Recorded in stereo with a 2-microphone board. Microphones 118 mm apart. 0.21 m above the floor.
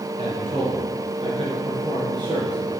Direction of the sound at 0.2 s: 50° right (ahead or behind).